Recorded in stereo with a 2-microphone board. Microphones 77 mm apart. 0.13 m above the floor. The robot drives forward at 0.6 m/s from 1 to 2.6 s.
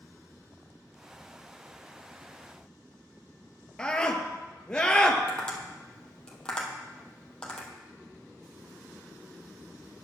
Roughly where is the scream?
Centre.